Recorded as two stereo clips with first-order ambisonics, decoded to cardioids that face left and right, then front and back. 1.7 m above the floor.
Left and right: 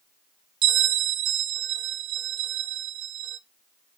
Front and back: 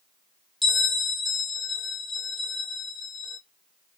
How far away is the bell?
About 1.1 m.